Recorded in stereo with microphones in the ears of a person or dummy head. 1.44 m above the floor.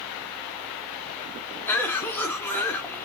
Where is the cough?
10° left (ahead or behind), 0.7 m.